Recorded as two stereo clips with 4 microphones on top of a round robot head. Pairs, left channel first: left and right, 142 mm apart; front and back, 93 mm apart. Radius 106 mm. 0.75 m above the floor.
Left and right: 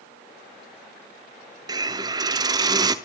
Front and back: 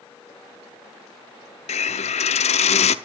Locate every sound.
1.7 s a hiss: 20° right, 0.5 m